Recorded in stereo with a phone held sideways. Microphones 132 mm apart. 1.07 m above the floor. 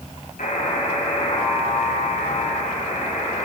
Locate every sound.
0.4 s a buzzer: 80° left, 6.5 m